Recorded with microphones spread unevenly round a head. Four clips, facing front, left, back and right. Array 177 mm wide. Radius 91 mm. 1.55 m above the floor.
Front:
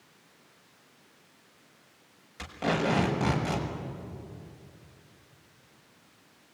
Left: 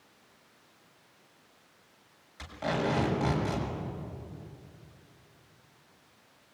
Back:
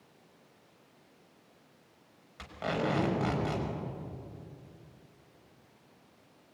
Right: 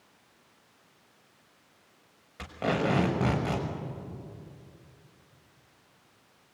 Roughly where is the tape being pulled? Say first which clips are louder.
Right 2 dB, front 4 dB; right.